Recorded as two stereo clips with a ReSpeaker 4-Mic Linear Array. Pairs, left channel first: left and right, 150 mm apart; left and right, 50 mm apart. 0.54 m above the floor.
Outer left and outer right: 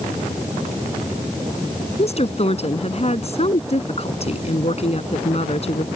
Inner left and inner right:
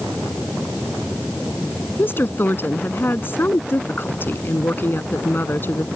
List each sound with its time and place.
2.0 s a woman speaking: 45° left (ahead or behind)